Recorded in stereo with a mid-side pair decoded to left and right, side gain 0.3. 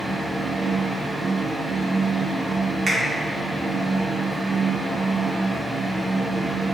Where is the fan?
30° right, 1.3 m.